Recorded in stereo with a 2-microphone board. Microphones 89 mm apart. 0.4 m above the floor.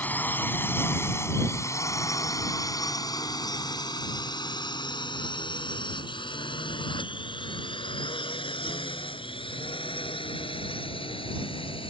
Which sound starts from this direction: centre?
A drone, at 0.0 s.